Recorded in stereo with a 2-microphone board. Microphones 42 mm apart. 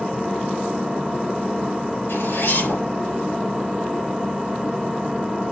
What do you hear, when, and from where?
0.0 s an engine running: 5° right (ahead or behind), 1.2 m
2.1 s a zipper: 65° left (ahead or behind), 5.5 m